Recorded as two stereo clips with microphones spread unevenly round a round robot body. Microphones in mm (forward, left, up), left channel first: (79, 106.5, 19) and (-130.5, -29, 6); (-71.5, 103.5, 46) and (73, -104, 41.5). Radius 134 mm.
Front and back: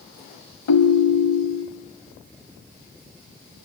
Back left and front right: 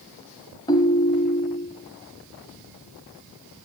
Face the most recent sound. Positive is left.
turn(degrees=50)